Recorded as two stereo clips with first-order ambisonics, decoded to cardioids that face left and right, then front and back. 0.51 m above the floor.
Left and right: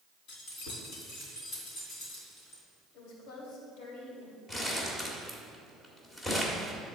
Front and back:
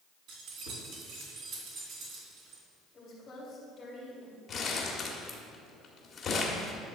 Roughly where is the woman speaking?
Left.